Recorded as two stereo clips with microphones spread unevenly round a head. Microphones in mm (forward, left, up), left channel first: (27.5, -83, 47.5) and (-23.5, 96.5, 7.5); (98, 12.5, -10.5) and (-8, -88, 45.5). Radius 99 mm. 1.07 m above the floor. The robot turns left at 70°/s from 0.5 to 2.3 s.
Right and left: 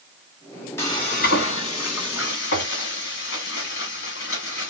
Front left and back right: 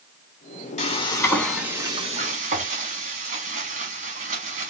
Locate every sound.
0.8 s frying: 5° left, 1.4 m; by 4.7 s 105° right, 1.4 m